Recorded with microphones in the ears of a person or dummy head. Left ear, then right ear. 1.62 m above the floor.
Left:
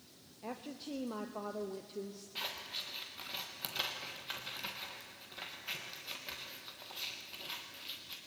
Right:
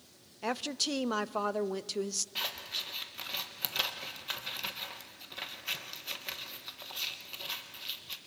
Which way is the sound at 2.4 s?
20° right (ahead or behind).